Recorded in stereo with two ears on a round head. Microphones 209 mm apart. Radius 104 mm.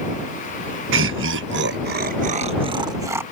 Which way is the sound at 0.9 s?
55° right (ahead or behind).